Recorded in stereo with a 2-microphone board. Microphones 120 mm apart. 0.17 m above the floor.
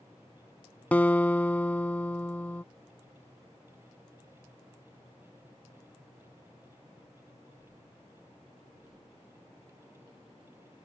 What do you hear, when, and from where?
0.9 s a guitar: 15° left (ahead or behind)